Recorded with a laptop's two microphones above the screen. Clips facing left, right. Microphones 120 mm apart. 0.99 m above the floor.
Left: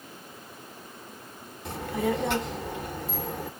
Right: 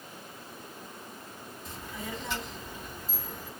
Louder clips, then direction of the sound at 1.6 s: Left 13 dB; 75° left (ahead or behind).